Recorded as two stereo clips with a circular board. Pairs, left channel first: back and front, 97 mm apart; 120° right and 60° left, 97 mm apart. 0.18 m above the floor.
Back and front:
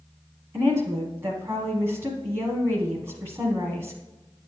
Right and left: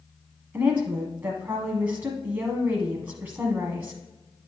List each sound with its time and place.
0.5 s a woman speaking: 15° left, 1.2 m